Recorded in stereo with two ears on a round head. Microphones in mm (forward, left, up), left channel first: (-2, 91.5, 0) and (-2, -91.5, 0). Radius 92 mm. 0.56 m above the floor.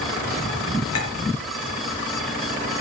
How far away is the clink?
About 6 m.